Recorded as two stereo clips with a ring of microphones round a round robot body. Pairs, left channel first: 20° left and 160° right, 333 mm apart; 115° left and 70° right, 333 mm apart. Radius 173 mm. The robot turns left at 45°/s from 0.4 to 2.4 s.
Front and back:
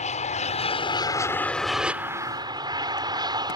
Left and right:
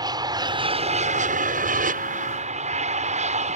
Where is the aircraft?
10° right; by 3.6 s 100° right.